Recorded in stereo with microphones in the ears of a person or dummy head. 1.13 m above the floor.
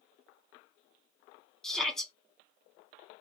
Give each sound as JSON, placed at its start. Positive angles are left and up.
{"t": 1.6, "sound": "a shout", "side_deg": 0, "distance_m": 2.5}